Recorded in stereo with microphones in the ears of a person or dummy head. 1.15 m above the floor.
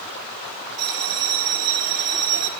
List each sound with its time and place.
0.8 s a bell: 60° right (ahead or behind), 4 m